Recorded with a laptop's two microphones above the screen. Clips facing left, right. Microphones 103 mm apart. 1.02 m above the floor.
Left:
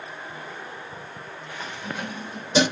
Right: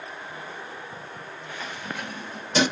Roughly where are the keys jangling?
Left.